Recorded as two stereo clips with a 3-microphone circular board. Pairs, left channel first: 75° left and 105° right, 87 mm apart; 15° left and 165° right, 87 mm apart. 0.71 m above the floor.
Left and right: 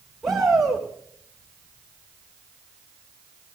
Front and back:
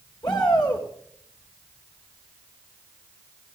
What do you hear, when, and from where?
0.2 s a shout: 20° right, 3 m